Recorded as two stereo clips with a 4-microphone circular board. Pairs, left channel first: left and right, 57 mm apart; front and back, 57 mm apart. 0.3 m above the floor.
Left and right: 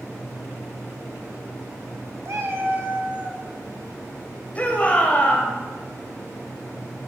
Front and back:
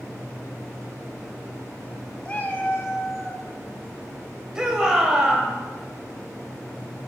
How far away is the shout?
About 1.7 m.